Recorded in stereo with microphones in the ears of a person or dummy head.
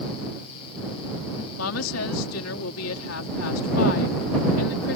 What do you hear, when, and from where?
1.6 s a woman speaking: 80° left